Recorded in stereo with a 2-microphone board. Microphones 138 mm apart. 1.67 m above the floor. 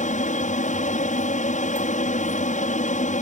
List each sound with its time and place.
0.0 s an aircraft: 70° left (ahead or behind)